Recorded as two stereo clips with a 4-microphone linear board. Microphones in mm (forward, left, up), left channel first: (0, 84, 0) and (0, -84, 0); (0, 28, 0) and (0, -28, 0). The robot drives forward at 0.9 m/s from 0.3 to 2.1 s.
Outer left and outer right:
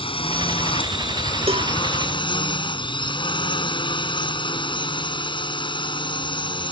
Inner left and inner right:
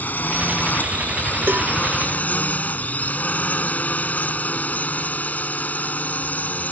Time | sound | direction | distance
0.0 | a drone | 35° left (ahead or behind) | ?
1.5 | a cowbell | 35° right (ahead or behind) | ?